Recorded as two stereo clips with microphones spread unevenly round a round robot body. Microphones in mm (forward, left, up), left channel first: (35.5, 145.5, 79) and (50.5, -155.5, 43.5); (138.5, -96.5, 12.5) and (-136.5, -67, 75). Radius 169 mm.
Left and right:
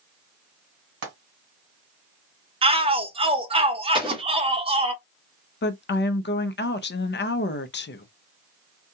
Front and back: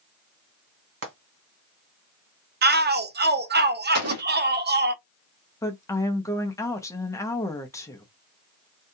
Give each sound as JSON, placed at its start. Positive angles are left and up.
{"t": 1.0, "sound": "frying", "azimuth_deg": -140, "distance_m": 1.8}
{"t": 2.6, "sound": "a shout", "azimuth_deg": -130, "distance_m": 0.5}
{"t": 3.9, "sound": "an explosion", "azimuth_deg": -155, "distance_m": 1.2}
{"t": 5.6, "sound": "a woman speaking", "azimuth_deg": 45, "distance_m": 0.5}